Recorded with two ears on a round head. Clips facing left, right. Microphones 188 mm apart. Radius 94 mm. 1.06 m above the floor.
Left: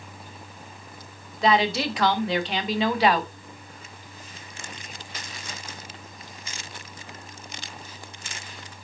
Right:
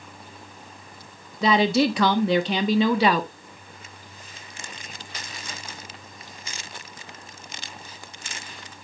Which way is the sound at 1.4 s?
85° right.